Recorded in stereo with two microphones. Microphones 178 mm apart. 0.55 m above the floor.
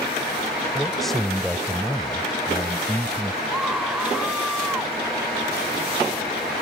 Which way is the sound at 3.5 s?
5° right (ahead or behind).